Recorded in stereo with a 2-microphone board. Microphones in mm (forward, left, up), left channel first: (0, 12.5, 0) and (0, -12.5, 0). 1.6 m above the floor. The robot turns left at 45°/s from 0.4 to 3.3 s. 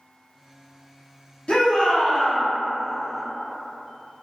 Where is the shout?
55° left, 0.7 m; by 2.4 s 15° left, 0.7 m.